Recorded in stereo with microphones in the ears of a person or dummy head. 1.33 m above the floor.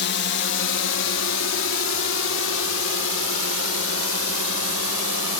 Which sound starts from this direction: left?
A drone, at 0.0 s.